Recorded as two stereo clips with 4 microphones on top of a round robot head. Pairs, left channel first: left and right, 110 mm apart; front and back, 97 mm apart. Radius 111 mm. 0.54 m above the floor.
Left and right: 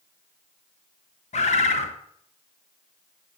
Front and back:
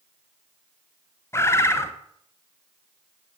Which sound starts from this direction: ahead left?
A bird, at 1.3 s.